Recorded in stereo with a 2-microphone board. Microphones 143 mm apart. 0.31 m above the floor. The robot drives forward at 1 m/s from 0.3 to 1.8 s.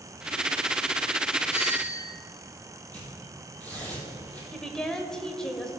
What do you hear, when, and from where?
1.5 s a doorbell: 50° left (ahead or behind), 3.5 m
2.9 s tearing paper: 10° left (ahead or behind), 3.5 m
4.5 s a woman speaking: 5° left (ahead or behind), 0.9 m